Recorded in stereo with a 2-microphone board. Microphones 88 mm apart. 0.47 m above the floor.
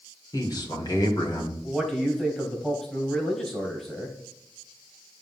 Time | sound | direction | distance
0.3 | a man speaking | 45° left (ahead or behind) | 1.6 m
1.6 | a man speaking | 15° left (ahead or behind) | 2.5 m